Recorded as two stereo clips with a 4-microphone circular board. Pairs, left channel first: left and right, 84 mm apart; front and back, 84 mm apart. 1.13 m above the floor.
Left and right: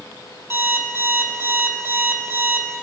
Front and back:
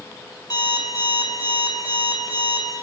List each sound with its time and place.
0.5 s an alarm clock: 30° right, 1.8 m